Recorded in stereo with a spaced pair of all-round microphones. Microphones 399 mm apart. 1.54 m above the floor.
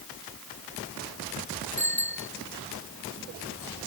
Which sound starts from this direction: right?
A bicycle bell, at 1.8 s.